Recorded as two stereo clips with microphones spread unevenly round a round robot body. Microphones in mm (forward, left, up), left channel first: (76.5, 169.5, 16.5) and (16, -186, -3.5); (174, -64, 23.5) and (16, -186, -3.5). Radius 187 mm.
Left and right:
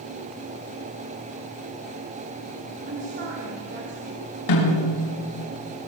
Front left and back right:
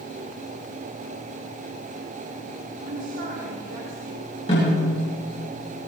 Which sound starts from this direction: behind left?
A snare drum, at 4.5 s.